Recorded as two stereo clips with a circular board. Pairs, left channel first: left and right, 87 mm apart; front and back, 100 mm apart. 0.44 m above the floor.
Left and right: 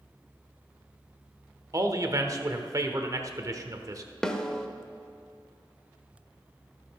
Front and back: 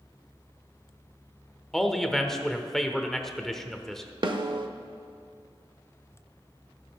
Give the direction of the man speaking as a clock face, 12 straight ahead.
3 o'clock.